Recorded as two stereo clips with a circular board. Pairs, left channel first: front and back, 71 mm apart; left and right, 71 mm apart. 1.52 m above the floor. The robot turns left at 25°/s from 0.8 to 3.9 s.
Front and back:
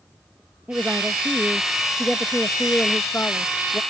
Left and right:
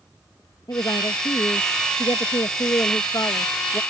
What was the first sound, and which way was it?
A woman speaking, 115° left.